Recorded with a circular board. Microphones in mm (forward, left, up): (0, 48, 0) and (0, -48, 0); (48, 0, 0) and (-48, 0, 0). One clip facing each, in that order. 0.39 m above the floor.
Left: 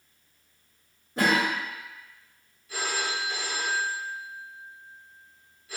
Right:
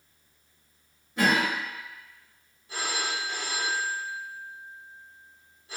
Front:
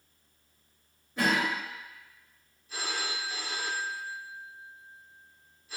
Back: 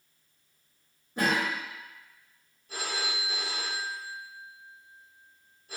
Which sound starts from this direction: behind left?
A cough, at 1.2 s.